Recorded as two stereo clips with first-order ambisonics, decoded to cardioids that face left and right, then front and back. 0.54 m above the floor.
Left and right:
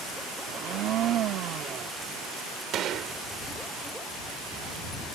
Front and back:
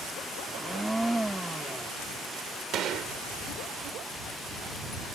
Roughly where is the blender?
Right.